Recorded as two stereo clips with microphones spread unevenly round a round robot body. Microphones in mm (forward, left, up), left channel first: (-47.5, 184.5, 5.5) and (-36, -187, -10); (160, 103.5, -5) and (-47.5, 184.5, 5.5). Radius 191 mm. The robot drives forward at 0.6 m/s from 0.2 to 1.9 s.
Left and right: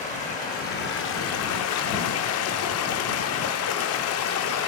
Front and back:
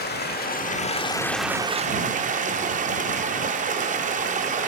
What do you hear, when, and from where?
0.0 s running water: 20° left, 1.0 m; by 4.7 s 120° left, 0.5 m